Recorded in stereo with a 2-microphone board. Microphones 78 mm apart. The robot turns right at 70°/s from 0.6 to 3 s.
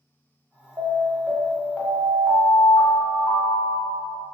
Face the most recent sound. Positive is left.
turn(degrees=95)